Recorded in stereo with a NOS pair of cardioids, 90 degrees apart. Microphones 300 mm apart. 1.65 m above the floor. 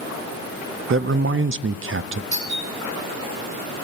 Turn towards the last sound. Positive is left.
turn(degrees=-60)